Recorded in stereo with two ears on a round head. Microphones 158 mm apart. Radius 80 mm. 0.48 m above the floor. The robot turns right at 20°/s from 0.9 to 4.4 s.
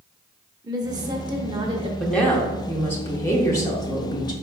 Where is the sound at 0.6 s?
20° right (ahead or behind), 0.8 m; by 1.9 s 30° right (ahead or behind), 0.8 m.